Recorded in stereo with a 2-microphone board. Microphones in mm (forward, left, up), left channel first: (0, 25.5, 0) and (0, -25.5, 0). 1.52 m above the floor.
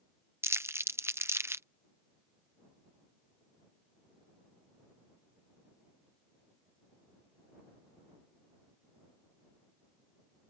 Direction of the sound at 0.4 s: 55° right (ahead or behind).